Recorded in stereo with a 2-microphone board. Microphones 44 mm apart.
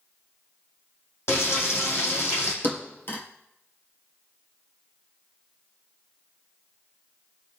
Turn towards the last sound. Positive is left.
turn(degrees=50)  # may be behind; listen again after turning